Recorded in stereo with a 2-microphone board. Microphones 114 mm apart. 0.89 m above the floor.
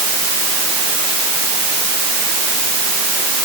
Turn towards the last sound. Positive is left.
No sound to turn to.